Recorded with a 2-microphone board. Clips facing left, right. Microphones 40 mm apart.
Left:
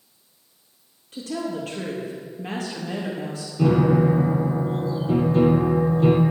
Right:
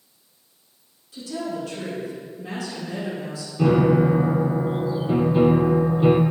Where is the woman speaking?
55° left (ahead or behind), 4 m.